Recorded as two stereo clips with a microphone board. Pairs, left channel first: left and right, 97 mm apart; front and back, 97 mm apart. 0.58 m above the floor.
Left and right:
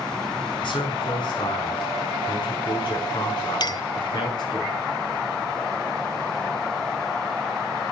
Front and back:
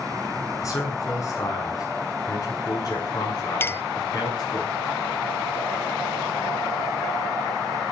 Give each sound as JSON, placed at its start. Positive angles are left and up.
{"t": 0.6, "sound": "a man speaking", "azimuth_deg": 55, "distance_m": 7.0}
{"t": 3.6, "sound": "a clink", "azimuth_deg": 60, "distance_m": 0.5}